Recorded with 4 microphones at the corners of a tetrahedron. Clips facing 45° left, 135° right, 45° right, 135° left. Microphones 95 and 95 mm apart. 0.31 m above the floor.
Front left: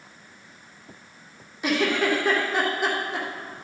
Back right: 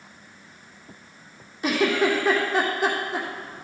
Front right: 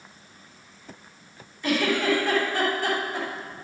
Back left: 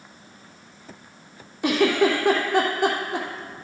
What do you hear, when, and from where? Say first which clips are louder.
1.6 s a giggle: back right 2 dB, back left 4 dB; 135° left, 2.5 m